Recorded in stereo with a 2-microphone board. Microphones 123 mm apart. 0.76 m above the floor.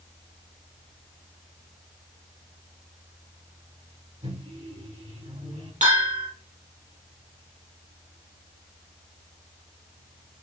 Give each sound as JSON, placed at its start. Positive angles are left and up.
{"t": 4.2, "sound": "a microwave", "side_deg": -70, "distance_m": 5.0}
{"t": 5.8, "sound": "a bell", "side_deg": -80, "distance_m": 3.5}